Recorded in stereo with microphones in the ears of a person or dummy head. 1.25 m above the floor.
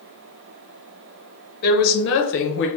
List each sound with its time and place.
1.6 s a woman speaking: 50° left (ahead or behind), 0.9 m